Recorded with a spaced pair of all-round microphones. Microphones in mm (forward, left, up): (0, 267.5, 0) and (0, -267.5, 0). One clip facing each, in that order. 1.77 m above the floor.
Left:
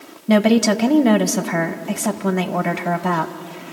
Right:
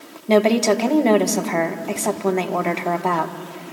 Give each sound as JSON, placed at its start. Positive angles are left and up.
{"t": 0.3, "sound": "a woman speaking", "side_deg": 35, "distance_m": 1.4}